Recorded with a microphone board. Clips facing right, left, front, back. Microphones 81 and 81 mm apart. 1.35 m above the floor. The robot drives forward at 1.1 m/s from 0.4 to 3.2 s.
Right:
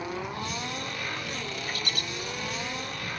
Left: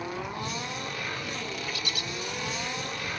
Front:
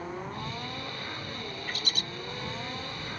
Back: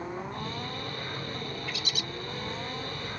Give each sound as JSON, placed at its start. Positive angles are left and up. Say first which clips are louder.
{"t": 1.7, "sound": "a bird", "louder": "right 1 dB, even", "azimuth_deg": -45}